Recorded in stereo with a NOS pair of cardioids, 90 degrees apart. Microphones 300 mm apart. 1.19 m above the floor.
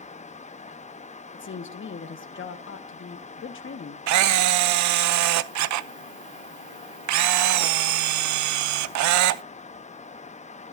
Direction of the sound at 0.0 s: 25° left.